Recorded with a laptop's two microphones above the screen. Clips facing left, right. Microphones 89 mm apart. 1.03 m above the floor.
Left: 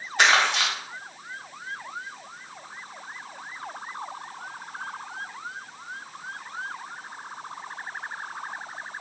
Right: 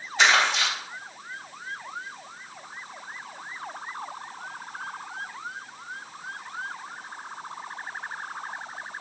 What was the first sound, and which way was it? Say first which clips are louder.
Crumpling: even; 55° left (ahead or behind).